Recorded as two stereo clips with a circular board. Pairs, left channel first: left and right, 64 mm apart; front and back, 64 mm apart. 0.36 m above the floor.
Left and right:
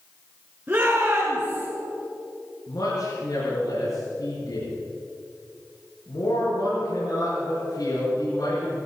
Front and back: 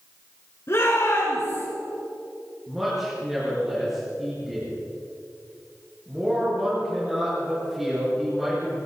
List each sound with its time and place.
0.7 s a shout: 20° right, 4.5 m
2.7 s a man speaking: 95° left, 6.5 m